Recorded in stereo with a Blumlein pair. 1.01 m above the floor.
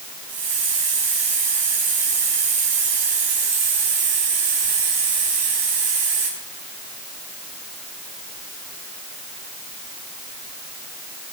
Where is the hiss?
45° right, 5.5 m.